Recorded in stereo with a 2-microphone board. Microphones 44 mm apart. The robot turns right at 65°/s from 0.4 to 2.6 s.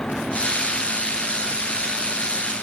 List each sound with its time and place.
Only background noise.